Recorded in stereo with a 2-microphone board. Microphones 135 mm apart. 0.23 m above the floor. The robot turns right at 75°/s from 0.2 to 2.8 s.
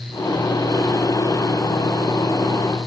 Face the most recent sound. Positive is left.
No sound to turn to.